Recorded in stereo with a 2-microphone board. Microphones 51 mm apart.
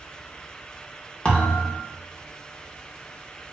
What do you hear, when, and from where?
1.2 s a thud: 20° left (ahead or behind), 0.7 m